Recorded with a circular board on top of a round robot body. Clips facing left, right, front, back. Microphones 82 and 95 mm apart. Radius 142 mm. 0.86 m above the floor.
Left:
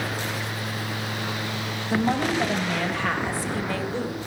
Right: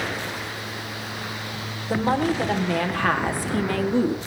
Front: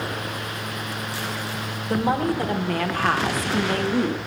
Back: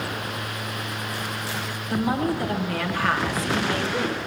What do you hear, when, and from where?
1.9 s a woman speaking: 45° right, 3 m; by 4.2 s 60° right, 1.6 m